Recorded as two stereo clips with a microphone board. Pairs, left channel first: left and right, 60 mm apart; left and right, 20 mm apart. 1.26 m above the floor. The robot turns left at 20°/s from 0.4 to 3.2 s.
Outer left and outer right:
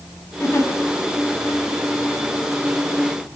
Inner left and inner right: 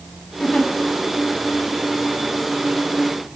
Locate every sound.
0.4 s a giggle: 45° left (ahead or behind), 6 m; by 0.7 s 50° left (ahead or behind), 6 m